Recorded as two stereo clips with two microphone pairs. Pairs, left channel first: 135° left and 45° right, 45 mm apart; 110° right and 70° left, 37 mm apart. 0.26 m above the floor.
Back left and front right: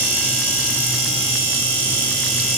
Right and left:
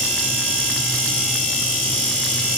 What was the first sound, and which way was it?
Only background noise.